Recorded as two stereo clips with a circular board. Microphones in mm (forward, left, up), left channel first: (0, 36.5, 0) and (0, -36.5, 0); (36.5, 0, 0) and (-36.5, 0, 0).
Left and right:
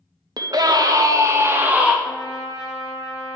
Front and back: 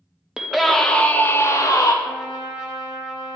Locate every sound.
0.4 s a scream: 100° right, 0.8 m; by 1.9 s 20° right, 0.7 m
2.0 s a trumpet: 110° left, 1.8 m